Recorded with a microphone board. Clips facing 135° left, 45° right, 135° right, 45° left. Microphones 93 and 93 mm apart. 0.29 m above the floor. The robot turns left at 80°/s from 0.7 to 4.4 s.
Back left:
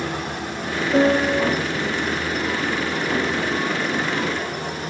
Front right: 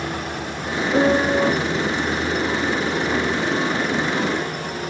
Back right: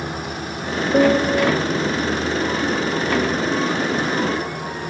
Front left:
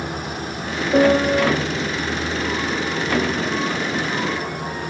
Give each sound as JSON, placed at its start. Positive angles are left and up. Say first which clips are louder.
{"t": 0.9, "sound": "a piano", "louder": "even, front left 1 dB", "azimuth_deg": 60, "distance_m": 1.0}